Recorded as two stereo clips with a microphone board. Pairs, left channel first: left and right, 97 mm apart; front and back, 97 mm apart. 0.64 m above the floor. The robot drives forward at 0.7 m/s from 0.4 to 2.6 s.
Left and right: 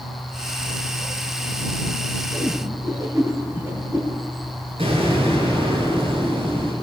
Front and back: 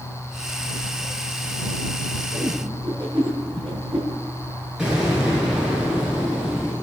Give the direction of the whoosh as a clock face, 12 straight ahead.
5 o'clock.